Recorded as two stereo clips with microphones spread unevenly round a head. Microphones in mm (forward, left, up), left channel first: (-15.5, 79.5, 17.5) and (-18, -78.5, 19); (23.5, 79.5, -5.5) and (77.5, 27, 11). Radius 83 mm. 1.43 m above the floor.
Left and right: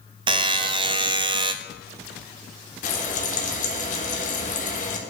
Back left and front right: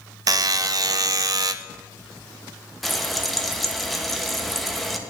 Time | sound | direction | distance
0.3 | a buzzer | 30° right | 0.5 m
2.8 | frying | 45° left | 1.5 m